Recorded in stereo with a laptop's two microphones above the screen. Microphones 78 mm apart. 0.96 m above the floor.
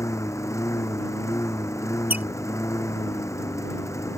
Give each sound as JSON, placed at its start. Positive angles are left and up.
{"t": 0.0, "sound": "a lawn mower", "side_deg": 35}
{"t": 2.1, "sound": "a squeak", "side_deg": -20}